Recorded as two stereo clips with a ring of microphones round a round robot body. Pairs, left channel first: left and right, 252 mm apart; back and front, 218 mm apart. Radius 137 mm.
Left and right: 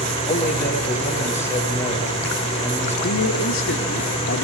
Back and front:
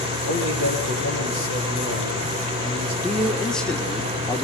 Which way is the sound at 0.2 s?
10° left.